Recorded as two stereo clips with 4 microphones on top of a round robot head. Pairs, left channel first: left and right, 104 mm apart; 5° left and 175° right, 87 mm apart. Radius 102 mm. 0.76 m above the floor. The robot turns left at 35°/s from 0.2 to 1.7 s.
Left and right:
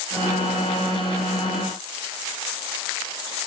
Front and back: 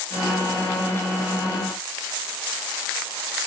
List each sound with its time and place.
Only background noise.